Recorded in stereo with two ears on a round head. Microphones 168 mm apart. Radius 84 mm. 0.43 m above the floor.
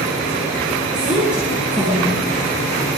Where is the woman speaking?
5° right (ahead or behind), 7 m.